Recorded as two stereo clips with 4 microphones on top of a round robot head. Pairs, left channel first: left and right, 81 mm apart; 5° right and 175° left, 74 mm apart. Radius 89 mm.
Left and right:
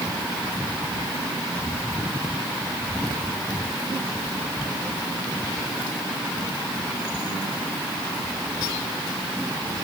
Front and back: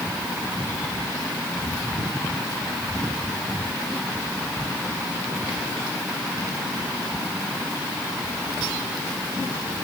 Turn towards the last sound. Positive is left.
No sound to turn to.